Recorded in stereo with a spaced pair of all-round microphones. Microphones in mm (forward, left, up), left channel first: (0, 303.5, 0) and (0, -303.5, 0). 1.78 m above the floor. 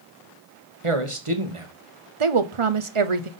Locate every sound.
0.8 s a man speaking: 55° right (ahead or behind), 1.6 m
2.2 s a woman speaking: 55° right (ahead or behind), 0.8 m